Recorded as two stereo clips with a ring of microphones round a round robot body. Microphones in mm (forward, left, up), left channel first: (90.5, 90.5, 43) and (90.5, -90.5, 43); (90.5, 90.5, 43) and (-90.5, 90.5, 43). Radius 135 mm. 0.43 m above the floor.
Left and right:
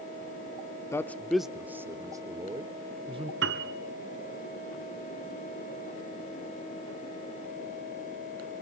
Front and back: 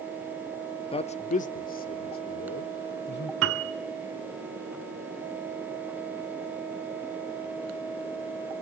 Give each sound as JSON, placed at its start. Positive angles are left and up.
{"t": 0.9, "sound": "a man speaking", "azimuth_deg": 25, "distance_m": 0.9}
{"t": 3.4, "sound": "a piano", "azimuth_deg": -140, "distance_m": 1.0}